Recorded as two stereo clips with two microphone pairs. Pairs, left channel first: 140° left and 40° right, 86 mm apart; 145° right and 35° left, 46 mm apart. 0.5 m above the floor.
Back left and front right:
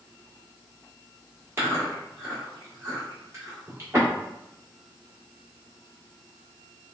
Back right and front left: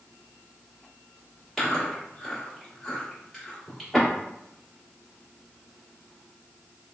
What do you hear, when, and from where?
1.6 s chewing: 55° right, 1.2 m